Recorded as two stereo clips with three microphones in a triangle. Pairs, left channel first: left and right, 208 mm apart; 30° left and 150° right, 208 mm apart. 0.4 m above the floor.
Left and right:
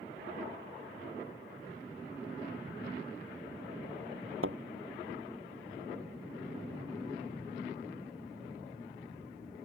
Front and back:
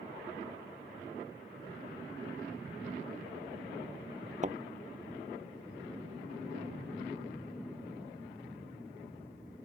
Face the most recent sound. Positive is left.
turn(degrees=-95)